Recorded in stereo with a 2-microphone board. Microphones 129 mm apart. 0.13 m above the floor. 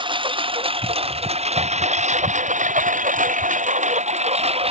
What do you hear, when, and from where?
0.0 s a lawn mower: 40° right (ahead or behind); by 4.7 s 50° right (ahead or behind)